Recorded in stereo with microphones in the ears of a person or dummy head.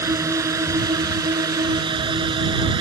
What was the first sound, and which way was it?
A drone, 20° right (ahead or behind).